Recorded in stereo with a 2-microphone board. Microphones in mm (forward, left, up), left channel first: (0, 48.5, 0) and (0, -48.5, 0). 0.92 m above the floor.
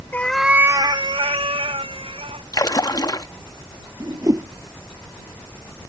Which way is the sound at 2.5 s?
40° left (ahead or behind).